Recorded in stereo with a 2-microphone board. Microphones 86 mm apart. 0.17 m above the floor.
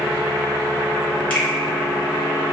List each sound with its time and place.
1.3 s a finger snap: 15° left (ahead or behind), 1.4 m